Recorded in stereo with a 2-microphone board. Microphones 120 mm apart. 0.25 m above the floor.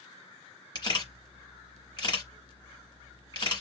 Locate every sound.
0.8 s a camera shutter: 40° left (ahead or behind), 2.0 m